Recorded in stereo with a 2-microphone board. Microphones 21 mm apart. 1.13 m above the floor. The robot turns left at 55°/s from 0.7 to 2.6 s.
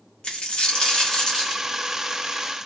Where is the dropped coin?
55° left, 0.9 m; by 1.6 s 5° left, 0.9 m.